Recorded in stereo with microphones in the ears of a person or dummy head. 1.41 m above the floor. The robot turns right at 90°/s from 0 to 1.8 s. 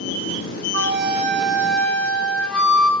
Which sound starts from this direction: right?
A flute, at 0.7 s.